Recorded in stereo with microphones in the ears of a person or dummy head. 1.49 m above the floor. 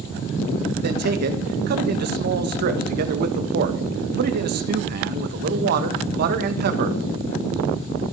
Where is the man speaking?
60° right (ahead or behind), 1.8 m.